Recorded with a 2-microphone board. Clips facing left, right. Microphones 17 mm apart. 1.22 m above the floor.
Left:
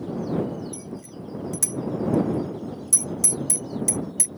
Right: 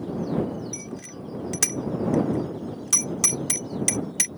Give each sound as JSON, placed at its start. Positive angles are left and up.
{"t": 0.7, "sound": "a bicycle bell", "side_deg": -40}